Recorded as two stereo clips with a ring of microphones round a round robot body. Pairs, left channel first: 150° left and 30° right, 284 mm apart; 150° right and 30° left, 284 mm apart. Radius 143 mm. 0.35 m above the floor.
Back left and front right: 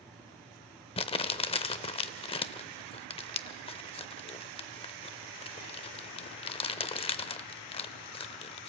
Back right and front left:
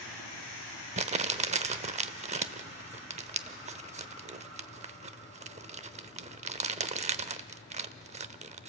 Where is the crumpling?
85° left, 0.7 m.